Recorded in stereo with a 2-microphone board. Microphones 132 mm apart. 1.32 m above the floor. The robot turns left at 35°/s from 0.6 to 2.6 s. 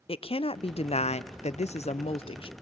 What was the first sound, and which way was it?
A woman speaking, 120° left.